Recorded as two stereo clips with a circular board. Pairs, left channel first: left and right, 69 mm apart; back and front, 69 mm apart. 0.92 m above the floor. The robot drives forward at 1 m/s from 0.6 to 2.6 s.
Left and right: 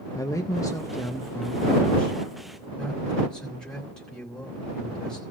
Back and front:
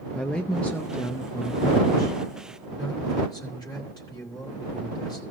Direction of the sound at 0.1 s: 105° left.